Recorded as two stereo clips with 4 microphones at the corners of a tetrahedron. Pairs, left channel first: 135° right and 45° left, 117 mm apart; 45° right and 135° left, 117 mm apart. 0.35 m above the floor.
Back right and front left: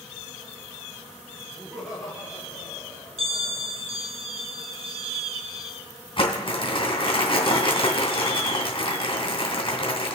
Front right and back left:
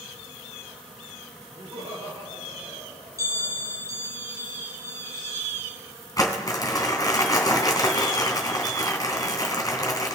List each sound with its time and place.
1.6 s laughter: 125° left, 5.5 m; by 3.7 s 150° left, 6.5 m
3.2 s a bell: 75° left, 2.5 m
6.2 s crumpling: 100° right, 3 m